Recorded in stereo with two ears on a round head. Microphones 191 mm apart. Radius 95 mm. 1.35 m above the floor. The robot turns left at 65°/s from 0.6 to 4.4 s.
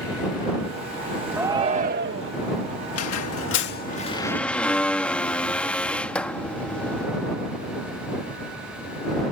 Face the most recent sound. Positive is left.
turn(degrees=5)